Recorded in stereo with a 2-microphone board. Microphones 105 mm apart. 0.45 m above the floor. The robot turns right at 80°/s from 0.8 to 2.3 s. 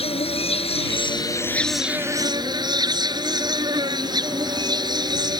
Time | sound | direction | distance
0.0 | an insect | 105° left | ?